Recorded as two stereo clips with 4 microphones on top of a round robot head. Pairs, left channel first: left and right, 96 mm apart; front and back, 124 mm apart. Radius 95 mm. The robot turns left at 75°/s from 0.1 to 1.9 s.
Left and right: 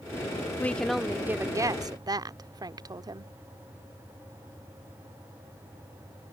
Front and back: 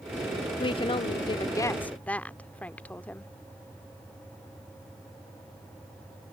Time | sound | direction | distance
0.6 | a woman speaking | 25° left | ?